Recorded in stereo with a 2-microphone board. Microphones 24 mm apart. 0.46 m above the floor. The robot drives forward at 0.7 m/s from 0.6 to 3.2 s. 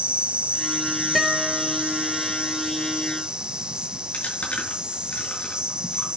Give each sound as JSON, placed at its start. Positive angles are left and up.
{"t": 0.0, "sound": "an insect", "side_deg": -65, "distance_m": 1.3}
{"t": 1.1, "sound": "a guitar", "side_deg": 0, "distance_m": 2.5}
{"t": 4.1, "sound": "chewing", "side_deg": 80, "distance_m": 5.5}